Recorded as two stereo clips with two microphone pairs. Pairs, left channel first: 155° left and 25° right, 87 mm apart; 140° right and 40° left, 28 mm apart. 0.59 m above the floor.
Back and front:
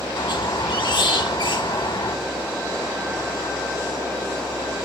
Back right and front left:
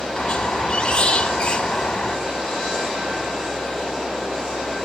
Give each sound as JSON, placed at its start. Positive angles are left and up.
{"t": 0.2, "sound": "a squeak", "azimuth_deg": 170, "distance_m": 0.9}